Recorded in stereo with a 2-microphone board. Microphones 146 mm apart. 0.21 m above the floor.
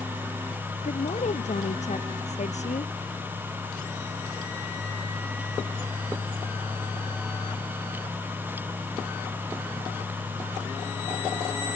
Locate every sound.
0.8 s a woman speaking: 55° left (ahead or behind)